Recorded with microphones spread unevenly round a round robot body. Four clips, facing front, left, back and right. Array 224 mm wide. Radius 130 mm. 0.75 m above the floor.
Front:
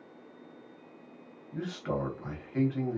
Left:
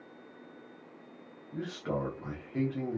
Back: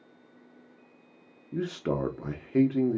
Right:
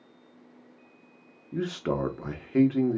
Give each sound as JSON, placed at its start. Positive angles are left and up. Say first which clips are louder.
{"t": 1.5, "sound": "a man speaking", "louder": "right 6 dB, back 4 dB", "azimuth_deg": -140, "distance_m": 0.8}